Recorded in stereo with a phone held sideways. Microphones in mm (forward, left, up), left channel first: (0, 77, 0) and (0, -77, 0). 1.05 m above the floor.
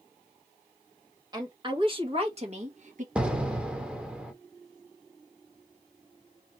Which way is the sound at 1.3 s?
25° right (ahead or behind).